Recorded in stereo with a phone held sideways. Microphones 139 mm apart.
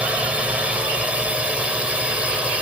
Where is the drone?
10° right (ahead or behind).